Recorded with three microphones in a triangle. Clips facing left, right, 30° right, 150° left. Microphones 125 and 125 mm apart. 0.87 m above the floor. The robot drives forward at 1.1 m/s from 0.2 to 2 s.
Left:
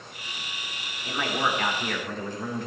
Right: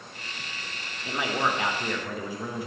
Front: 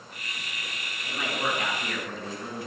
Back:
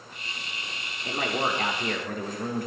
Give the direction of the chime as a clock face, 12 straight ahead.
I don't hear a chime.